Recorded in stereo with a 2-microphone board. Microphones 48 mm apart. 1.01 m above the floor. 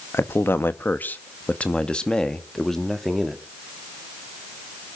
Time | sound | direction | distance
0.1 | a man speaking | 65° left (ahead or behind) | 1.2 m